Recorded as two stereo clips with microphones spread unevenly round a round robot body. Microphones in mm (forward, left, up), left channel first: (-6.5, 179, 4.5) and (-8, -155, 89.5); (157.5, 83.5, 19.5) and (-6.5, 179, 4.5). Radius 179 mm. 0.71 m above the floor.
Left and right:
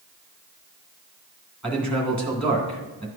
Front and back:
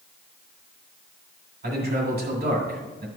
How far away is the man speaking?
About 1.9 m.